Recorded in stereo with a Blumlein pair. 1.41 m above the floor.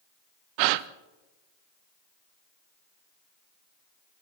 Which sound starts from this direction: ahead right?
A gasp, at 0.6 s.